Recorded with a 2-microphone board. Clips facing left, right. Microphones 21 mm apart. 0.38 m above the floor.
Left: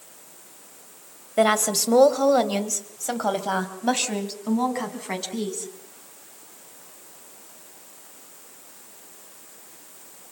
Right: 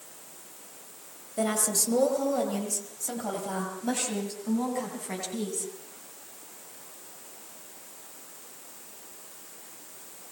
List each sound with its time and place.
1.4 s a woman speaking: 50° left (ahead or behind), 2 m; by 5.7 s 30° left (ahead or behind), 4 m